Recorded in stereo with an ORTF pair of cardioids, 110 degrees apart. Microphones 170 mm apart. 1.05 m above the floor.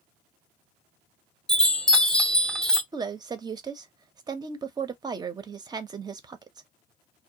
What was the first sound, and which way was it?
A chime, 5° left.